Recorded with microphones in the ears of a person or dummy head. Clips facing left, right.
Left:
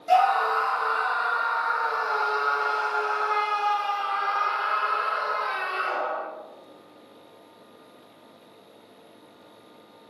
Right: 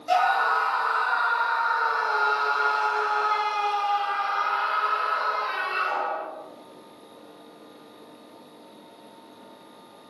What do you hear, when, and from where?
0.1 s a scream: 25° right (ahead or behind), 1.6 m